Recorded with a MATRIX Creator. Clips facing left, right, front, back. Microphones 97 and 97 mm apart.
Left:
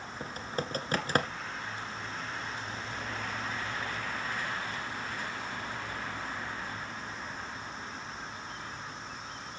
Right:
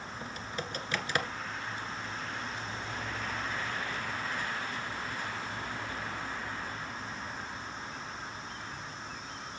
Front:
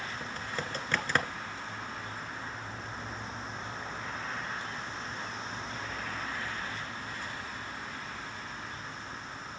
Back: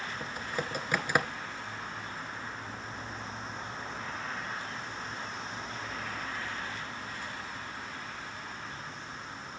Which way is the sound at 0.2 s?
105° left.